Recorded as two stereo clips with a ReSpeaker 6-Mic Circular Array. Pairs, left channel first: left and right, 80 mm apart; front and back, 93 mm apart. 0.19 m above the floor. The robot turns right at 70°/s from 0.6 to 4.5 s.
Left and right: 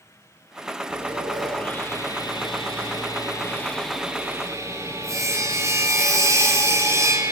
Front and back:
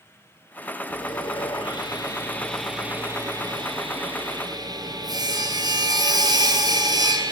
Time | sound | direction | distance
0.9 | sawing | 30° right | 5 m